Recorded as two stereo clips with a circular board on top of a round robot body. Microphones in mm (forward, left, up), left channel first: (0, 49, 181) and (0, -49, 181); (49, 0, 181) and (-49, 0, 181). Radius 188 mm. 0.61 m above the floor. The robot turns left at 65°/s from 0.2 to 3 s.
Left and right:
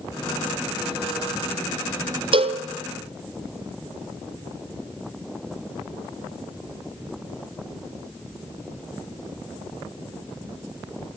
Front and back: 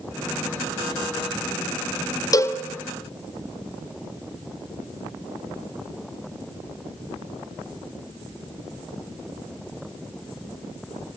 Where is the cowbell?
55° right, 1.6 m; by 2.6 s 75° right, 1.6 m.